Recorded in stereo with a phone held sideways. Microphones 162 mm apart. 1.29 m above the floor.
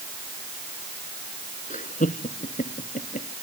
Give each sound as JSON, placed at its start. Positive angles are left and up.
{"t": 1.7, "sound": "laughter", "side_deg": 50}